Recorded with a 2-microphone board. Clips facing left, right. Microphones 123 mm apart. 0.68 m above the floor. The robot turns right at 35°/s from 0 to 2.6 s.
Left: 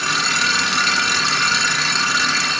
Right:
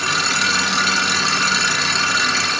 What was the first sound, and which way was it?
Only background noise.